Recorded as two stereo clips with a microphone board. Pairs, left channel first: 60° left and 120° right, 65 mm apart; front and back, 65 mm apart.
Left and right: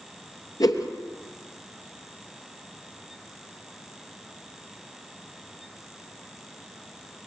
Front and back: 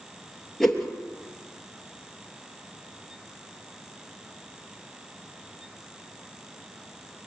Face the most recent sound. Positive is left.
turn(degrees=85)